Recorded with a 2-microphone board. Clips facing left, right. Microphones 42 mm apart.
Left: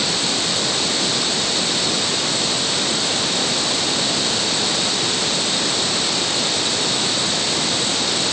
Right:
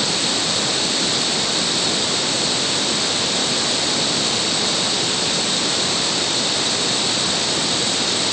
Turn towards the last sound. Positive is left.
No sound to turn to.